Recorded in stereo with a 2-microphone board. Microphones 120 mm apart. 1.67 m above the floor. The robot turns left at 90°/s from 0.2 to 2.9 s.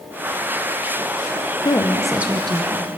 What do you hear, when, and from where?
1.6 s a woman speaking: 40° left, 1.1 m; by 2.9 s 70° right, 1.1 m